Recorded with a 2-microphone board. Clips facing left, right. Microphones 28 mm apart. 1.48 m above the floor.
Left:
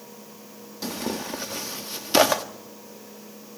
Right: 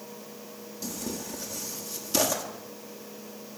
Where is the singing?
I don't hear singing.